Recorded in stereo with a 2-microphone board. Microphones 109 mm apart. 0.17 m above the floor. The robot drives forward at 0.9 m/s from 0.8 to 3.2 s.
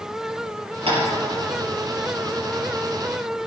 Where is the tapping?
60° right (ahead or behind), 4 m.